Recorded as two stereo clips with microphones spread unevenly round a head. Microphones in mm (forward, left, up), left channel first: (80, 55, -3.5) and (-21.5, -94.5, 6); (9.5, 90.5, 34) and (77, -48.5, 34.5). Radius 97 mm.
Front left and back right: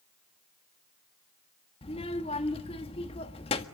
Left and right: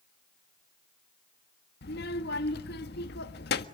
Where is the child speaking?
120° left, 1.5 m.